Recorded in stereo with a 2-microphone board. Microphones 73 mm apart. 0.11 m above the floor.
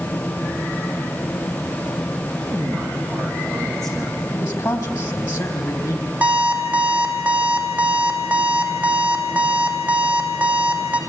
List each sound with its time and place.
2.4 s a man speaking: 5° left (ahead or behind), 6.5 m
4.3 s a man speaking: 45° left (ahead or behind), 3.5 m
6.2 s an alarm clock: 20° right (ahead or behind), 2.5 m